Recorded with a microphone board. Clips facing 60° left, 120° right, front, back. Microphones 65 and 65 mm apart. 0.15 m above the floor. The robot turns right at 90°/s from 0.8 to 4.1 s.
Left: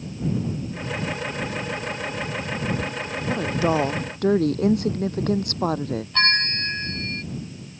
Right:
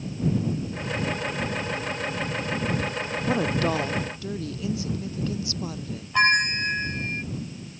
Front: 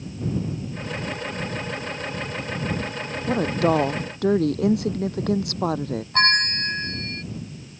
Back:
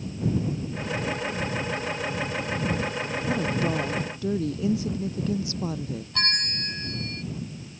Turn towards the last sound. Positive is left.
turn(degrees=-45)